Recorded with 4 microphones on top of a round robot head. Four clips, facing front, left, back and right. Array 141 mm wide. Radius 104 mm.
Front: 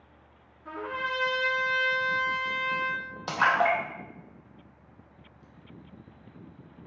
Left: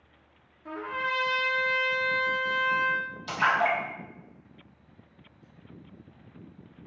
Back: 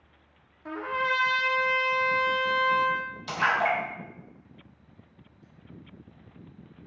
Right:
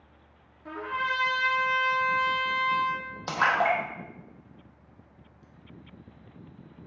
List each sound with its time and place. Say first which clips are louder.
0.7 s a trumpet: right 1 dB, back 4 dB; straight behind, 0.5 m
3.3 s a splash: right 1 dB, front 2 dB; 45° right, 0.8 m